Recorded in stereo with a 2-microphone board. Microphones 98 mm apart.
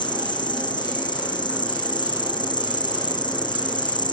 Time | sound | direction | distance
0.0 | an insect | 50° left (ahead or behind) | ?